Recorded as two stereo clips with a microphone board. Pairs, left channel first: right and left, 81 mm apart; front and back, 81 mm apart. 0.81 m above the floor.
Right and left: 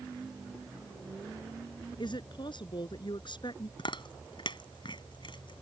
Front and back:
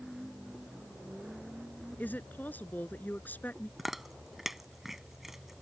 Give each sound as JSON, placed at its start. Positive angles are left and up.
{"t": 2.0, "sound": "a woman speaking", "azimuth_deg": -70}
{"t": 3.8, "sound": "chewing", "azimuth_deg": -95}